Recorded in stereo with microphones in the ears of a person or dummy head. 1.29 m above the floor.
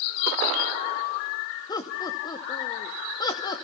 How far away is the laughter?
About 2.5 m.